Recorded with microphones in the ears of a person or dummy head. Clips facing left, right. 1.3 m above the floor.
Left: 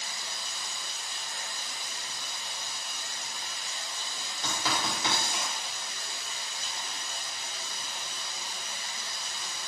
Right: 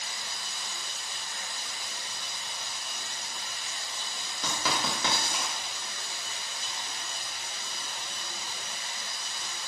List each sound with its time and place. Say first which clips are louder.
0.0 s running water: even; 20° right (ahead or behind), 1.6 m
4.4 s writing: right 1 dB; 60° right (ahead or behind), 0.9 m